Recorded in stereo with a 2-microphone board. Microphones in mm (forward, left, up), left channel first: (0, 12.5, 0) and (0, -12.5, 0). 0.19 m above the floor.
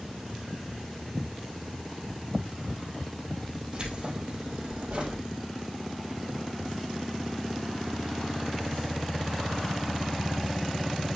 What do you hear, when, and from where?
3.7 s keys jangling: 45° right (ahead or behind), 3.5 m; by 5.2 s 70° right (ahead or behind), 3 m